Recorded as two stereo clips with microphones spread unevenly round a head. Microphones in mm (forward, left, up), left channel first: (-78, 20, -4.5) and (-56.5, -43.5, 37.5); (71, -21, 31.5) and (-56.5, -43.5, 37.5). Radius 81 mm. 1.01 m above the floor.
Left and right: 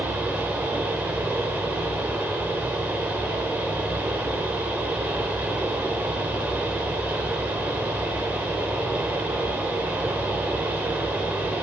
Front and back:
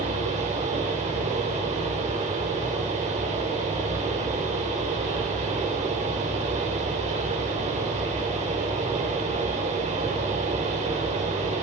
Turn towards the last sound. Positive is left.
turn(degrees=-140)